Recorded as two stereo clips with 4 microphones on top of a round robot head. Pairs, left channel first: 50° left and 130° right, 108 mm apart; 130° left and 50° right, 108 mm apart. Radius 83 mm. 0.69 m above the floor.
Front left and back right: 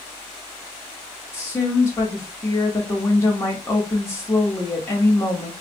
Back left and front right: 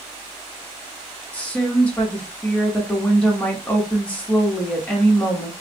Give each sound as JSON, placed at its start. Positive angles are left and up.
{"t": 1.3, "sound": "a woman speaking", "azimuth_deg": 70, "distance_m": 1.1}